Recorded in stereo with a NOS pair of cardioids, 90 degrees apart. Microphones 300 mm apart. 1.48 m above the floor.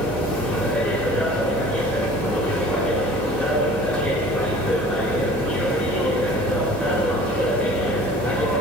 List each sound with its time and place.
0.0 s a machine running: 5° left, 2.5 m